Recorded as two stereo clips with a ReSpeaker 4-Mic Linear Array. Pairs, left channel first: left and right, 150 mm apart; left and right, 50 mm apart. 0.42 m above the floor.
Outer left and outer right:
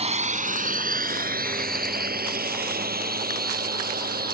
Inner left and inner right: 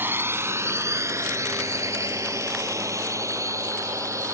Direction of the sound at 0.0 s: 45° right (ahead or behind).